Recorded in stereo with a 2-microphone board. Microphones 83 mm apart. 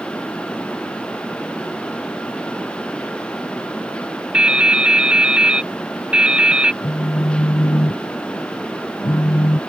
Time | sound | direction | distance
4.3 | dripping | 15° right (ahead or behind) | ?
6.8 | a phone buzzing | 70° left (ahead or behind) | ?